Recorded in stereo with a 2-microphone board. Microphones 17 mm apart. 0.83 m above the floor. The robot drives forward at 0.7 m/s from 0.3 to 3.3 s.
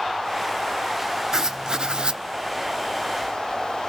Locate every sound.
1.3 s writing: 35° right (ahead or behind), 0.9 m; by 2.2 s 70° right (ahead or behind), 0.6 m